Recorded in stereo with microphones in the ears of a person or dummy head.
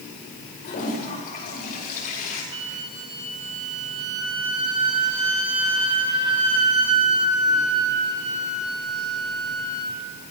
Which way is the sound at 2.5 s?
20° right (ahead or behind).